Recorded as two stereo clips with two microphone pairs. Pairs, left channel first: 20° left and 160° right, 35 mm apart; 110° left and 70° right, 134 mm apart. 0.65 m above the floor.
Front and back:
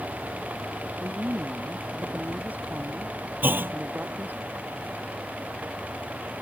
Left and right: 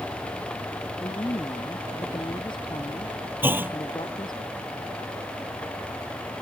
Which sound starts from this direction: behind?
A woman speaking, at 1.0 s.